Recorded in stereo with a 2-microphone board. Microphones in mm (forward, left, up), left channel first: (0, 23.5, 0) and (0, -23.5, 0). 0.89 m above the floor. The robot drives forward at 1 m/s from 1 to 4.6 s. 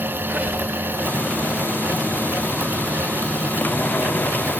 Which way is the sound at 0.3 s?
30° right (ahead or behind).